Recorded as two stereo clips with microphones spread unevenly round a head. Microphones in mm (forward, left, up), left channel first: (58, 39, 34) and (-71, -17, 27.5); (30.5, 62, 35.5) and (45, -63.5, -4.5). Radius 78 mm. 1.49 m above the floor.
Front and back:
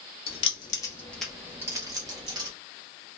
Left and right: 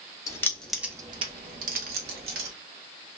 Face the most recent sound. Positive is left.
turn(degrees=-95)